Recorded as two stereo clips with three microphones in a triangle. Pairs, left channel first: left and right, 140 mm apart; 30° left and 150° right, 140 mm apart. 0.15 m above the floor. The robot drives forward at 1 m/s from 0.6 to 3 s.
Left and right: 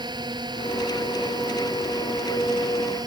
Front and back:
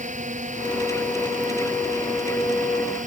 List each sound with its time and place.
0.0 s a drone: 145° right